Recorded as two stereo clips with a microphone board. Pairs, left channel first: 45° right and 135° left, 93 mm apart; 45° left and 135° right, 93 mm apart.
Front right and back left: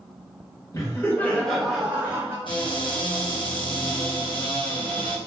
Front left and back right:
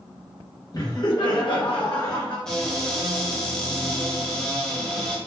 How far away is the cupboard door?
About 0.7 m.